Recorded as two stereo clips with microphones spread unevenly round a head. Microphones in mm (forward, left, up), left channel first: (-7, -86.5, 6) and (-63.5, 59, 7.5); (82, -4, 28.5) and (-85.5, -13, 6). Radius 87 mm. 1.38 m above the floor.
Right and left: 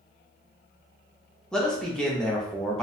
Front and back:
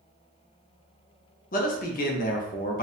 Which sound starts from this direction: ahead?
A man speaking, at 1.5 s.